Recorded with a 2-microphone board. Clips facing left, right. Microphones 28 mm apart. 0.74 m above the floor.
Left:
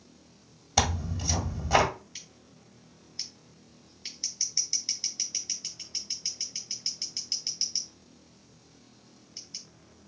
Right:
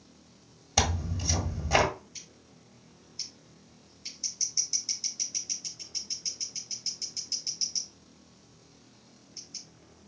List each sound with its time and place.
0.8 s tearing paper: 10° left (ahead or behind), 1.5 m
2.1 s scissors: 45° left (ahead or behind), 1.8 m